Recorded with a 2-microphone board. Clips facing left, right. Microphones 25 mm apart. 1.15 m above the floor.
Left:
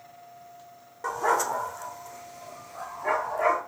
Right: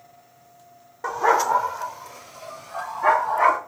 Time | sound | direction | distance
1.0 | a dog barking | 20° right (ahead or behind) | 0.8 m